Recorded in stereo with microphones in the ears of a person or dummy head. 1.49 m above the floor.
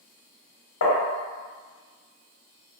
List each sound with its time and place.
0.8 s tapping: 75° left (ahead or behind), 0.8 m